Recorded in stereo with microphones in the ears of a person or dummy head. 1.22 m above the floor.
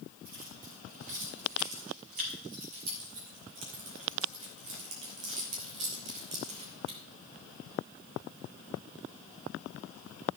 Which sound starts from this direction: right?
Keys jangling, at 0.2 s.